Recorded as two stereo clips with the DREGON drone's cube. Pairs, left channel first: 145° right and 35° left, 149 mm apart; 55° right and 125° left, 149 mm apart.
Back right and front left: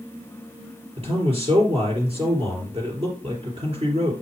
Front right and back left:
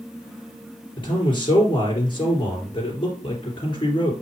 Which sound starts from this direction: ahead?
A man speaking, at 1.0 s.